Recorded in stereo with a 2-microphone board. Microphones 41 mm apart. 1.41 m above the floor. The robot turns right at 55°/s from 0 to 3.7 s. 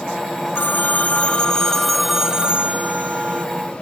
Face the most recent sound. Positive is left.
turn(degrees=-85)